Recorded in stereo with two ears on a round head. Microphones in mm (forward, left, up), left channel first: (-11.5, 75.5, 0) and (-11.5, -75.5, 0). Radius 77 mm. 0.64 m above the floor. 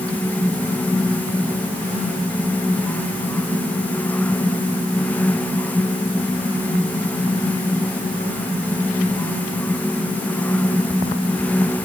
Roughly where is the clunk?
No clunk in this recording.